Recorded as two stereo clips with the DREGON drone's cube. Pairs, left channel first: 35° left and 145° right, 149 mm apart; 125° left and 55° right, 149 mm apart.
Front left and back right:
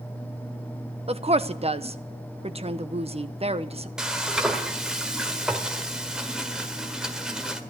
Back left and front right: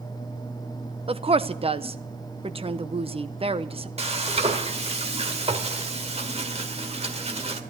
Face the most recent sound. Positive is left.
turn(degrees=-60)